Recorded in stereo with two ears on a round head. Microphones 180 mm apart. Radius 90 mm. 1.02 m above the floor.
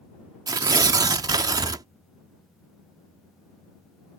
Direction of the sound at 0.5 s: 20° right (ahead or behind).